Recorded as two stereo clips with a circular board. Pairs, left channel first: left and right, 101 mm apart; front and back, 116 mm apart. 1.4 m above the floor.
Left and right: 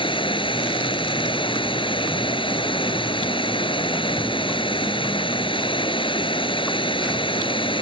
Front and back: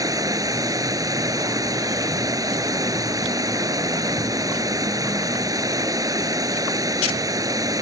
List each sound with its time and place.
0.0 s running water: 120° left